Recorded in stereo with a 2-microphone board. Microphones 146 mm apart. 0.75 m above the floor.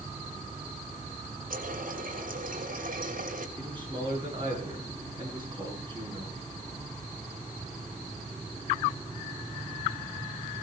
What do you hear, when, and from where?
1.5 s a running tap: 70° right (ahead or behind), 2.5 m
3.6 s a man speaking: 35° right (ahead or behind), 8 m